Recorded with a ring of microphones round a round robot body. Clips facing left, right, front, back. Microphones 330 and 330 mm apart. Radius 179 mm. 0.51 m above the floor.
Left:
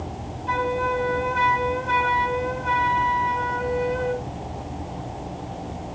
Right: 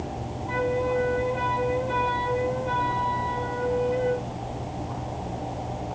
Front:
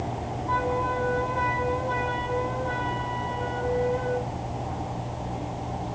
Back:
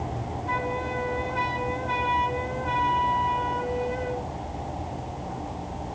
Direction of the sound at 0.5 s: 125° left.